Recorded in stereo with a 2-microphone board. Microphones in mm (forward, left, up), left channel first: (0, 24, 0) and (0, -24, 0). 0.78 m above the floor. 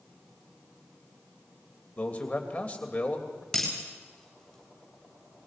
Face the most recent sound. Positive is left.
turn(degrees=5)  # may be behind; listen again after turning